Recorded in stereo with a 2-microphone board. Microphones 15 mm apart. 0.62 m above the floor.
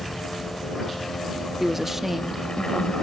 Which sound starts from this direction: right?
A woman speaking, at 1.6 s.